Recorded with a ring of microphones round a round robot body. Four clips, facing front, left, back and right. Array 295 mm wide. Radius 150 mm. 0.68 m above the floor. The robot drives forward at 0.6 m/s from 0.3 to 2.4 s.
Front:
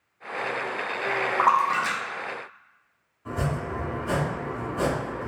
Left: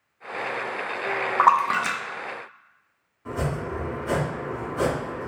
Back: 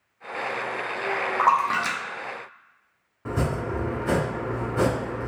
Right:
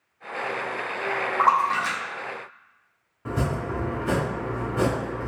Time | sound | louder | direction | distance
1.4 | a splash | left 2 dB, even | 75° left | 0.5 m
3.2 | chopping | right 1 dB, back 2 dB | 145° right | 1.2 m